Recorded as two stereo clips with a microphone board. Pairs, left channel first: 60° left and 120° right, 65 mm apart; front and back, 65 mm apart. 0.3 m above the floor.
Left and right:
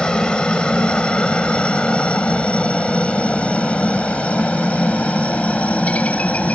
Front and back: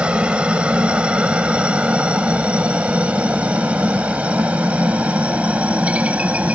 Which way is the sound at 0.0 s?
120° left.